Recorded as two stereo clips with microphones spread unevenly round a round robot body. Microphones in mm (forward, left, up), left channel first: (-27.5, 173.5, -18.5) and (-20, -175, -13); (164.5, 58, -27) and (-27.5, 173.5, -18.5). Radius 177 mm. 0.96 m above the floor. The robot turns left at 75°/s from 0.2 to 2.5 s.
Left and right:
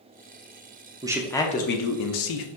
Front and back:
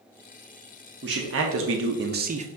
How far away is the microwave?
No microwave in this recording.